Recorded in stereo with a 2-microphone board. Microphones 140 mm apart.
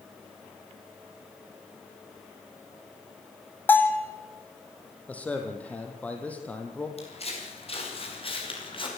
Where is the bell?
15° left (ahead or behind), 1.9 m.